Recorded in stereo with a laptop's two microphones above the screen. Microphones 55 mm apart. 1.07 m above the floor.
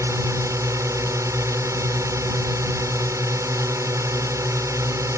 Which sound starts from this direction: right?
A drone, at 0.0 s.